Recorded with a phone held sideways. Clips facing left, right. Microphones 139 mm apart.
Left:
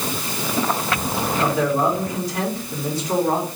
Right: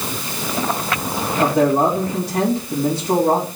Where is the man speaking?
60° right (ahead or behind), 3.5 m.